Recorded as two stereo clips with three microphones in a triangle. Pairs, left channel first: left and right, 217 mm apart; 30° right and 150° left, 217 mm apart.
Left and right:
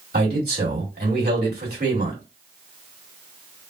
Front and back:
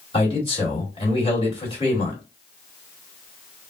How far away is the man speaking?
About 2 m.